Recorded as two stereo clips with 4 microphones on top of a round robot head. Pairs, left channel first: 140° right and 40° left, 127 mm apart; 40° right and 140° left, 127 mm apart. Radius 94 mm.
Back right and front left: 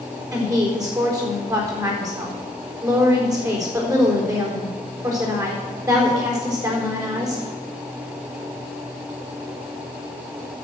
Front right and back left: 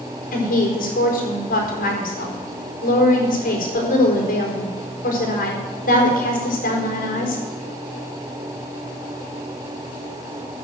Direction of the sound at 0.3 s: 25° right.